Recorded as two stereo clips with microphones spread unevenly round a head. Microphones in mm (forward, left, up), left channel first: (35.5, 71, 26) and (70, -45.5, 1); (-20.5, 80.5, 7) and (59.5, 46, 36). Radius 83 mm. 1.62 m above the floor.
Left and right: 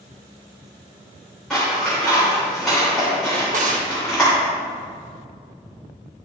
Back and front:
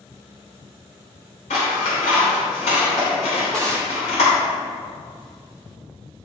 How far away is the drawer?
About 1.0 m.